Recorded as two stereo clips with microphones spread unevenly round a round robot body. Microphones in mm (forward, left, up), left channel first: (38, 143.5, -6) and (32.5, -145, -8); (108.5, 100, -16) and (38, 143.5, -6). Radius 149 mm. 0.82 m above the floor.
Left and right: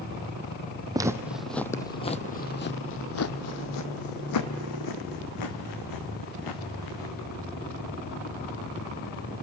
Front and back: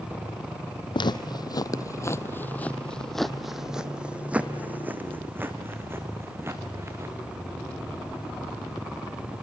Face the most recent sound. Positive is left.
turn(degrees=95)